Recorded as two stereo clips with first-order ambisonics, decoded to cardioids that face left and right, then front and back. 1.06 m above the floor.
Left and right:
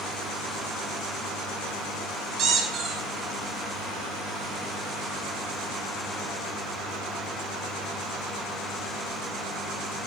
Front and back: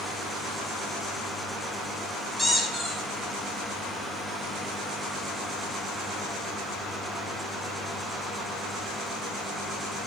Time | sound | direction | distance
2.4 | a squeak | 85° right | 0.5 m